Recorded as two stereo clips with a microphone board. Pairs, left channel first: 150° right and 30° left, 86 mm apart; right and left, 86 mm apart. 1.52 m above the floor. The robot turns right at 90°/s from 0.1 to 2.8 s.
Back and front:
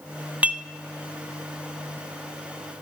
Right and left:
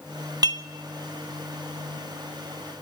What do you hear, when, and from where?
0.4 s dishes clattering: 95° left, 0.8 m; by 0.7 s 115° left, 0.8 m